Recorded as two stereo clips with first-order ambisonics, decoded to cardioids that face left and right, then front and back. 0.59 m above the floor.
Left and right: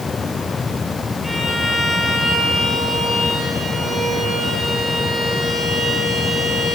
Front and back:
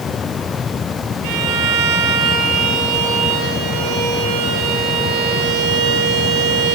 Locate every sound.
1.2 s a violin: straight behind, 8 m